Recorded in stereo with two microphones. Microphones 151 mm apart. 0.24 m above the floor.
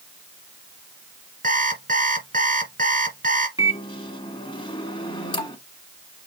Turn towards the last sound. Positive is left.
turn(degrees=35)  # may be behind; listen again after turning